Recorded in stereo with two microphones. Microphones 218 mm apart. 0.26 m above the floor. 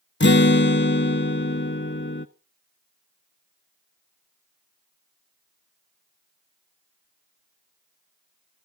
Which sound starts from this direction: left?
A guitar, at 0.2 s.